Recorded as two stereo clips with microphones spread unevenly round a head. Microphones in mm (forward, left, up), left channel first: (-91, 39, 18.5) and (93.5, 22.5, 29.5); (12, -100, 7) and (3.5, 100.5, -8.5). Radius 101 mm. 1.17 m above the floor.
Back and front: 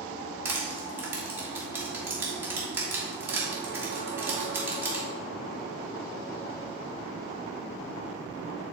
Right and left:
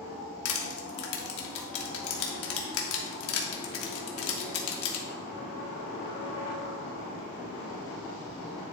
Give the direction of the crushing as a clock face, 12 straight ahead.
3 o'clock.